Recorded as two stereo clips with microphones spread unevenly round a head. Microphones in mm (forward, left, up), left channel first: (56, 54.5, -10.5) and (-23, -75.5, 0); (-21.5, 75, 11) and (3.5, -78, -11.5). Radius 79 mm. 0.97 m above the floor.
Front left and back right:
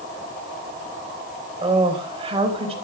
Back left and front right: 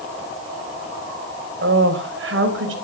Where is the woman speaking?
60° right, 4.5 m; by 2.8 s 70° right, 5 m.